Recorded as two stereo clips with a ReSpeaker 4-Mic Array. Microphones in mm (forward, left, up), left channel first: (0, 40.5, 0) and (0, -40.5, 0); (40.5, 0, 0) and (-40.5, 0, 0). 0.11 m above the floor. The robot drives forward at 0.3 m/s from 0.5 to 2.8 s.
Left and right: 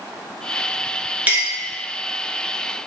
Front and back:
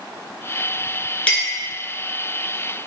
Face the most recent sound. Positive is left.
turn(degrees=-130)